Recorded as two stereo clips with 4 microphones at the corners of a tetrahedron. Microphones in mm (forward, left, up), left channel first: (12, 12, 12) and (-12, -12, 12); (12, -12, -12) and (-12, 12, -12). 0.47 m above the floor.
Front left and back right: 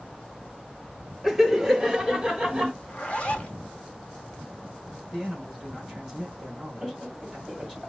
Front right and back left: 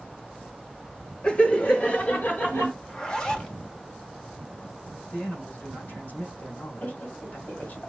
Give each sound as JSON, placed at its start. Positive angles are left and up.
{"t": 1.2, "sound": "laughter", "azimuth_deg": -60, "distance_m": 1.1}
{"t": 2.8, "sound": "a zipper", "azimuth_deg": 5, "distance_m": 0.9}
{"t": 5.1, "sound": "a man speaking", "azimuth_deg": -45, "distance_m": 3.5}
{"t": 6.8, "sound": "laughter", "azimuth_deg": -60, "distance_m": 2.5}